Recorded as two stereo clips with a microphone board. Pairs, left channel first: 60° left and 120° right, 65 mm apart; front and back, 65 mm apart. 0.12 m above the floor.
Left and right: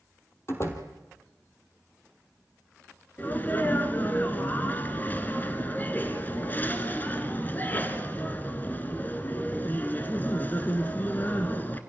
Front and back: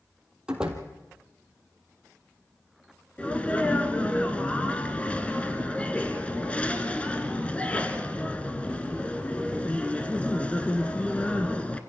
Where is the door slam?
100° left, 3 m.